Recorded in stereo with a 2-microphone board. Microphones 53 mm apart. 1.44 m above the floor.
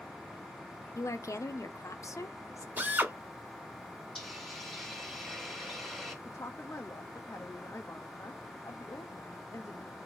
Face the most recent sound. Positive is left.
turn(degrees=70)  # may be behind; listen again after turning